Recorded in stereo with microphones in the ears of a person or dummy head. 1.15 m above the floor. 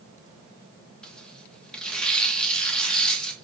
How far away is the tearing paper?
About 0.9 m.